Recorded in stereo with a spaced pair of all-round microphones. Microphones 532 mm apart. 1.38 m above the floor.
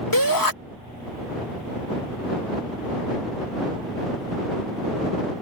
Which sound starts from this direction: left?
A shout, at 0.1 s.